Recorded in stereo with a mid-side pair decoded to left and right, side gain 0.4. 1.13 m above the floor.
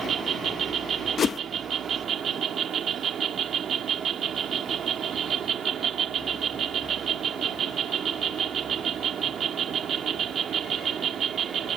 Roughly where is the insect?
Ahead right.